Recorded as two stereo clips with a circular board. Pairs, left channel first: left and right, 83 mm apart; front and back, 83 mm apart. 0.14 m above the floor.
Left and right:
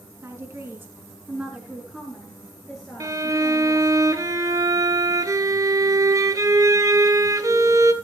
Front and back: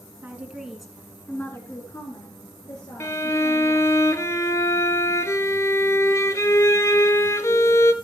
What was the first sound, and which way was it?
A woman speaking, 125° right.